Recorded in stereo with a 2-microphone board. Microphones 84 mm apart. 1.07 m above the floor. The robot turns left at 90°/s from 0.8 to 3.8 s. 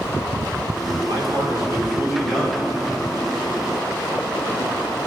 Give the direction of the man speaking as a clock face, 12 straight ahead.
2 o'clock.